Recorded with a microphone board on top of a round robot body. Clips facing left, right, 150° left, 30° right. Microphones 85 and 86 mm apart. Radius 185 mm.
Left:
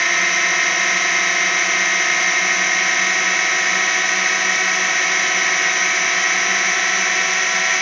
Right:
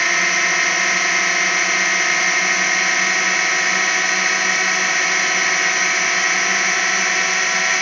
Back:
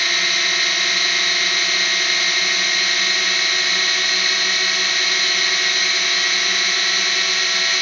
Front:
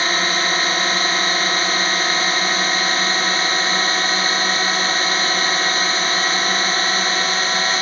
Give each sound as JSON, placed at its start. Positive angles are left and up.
{"t": 0.0, "sound": "a drone", "azimuth_deg": 0}